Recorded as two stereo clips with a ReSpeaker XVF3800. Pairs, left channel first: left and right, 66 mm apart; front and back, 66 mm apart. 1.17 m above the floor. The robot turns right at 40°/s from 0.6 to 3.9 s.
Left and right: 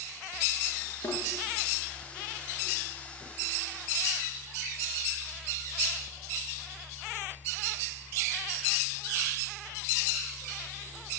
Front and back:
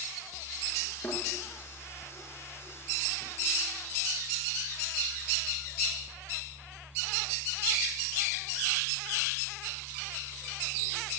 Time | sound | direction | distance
1.0 | a thud | 50° left | 6.5 m